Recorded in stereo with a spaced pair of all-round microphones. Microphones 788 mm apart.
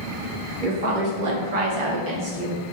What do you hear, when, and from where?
0.6 s a woman speaking: 75° right (ahead or behind), 1.1 m; by 2.6 s 5° right (ahead or behind), 0.7 m